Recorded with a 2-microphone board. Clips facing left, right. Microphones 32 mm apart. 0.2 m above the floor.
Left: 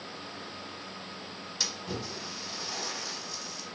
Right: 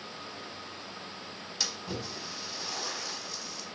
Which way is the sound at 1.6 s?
5° right (ahead or behind).